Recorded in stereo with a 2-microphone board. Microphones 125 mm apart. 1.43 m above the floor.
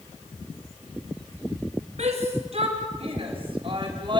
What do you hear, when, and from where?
2.0 s a shout: 60° right (ahead or behind), 4 m; by 4.2 s 40° right (ahead or behind), 4 m